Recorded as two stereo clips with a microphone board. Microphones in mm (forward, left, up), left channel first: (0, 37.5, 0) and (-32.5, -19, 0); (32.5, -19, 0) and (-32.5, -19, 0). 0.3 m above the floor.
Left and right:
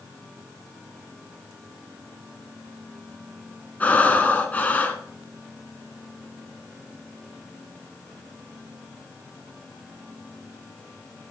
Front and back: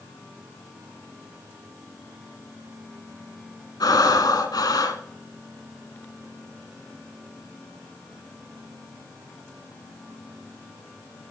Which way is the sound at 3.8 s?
5° right.